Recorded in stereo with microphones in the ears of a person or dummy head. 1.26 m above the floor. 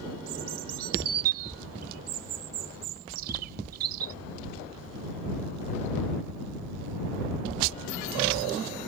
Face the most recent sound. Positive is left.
turn(degrees=-55)  # may be behind; listen again after turning